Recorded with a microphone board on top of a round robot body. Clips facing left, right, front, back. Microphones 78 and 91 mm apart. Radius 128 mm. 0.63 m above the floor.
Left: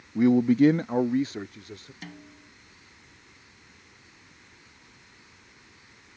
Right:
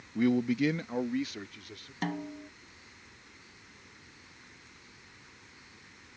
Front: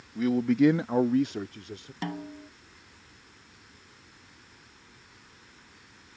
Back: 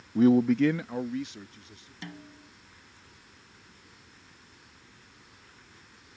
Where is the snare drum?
50° right.